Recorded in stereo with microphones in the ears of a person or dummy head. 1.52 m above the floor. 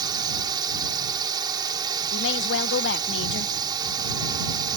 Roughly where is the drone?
Right.